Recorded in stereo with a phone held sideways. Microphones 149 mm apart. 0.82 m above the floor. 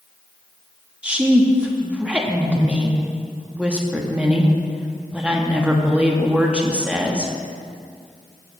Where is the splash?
I don't hear a splash.